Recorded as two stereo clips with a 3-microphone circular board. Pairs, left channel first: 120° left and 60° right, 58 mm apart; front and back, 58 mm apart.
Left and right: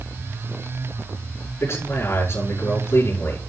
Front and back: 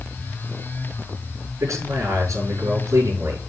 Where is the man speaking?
160° left, 5.5 m.